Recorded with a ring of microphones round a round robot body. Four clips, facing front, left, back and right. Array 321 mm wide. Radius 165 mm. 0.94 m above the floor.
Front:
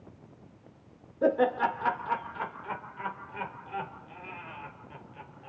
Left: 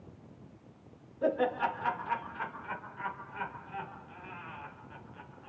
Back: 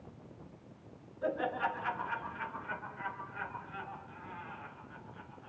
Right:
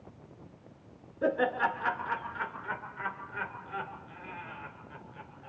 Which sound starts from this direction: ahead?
Laughter, at 1.2 s.